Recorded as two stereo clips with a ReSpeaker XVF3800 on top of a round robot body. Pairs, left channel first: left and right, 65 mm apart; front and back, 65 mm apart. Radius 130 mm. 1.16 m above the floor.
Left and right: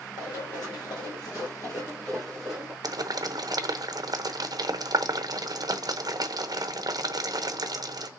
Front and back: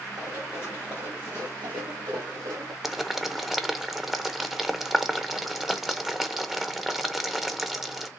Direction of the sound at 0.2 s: 100° left.